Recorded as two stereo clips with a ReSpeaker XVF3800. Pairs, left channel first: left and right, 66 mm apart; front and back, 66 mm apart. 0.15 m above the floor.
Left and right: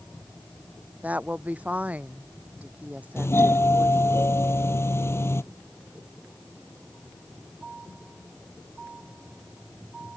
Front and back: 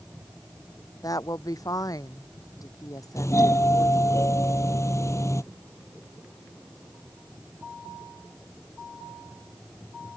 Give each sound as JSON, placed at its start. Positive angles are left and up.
{"t": 1.0, "sound": "a woman speaking", "azimuth_deg": -25}
{"t": 3.2, "sound": "a doorbell", "azimuth_deg": 40}